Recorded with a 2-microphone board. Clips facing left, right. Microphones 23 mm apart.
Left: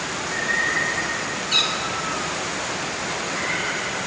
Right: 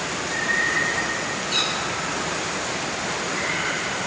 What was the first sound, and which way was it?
A cat meowing, 20° left (ahead or behind).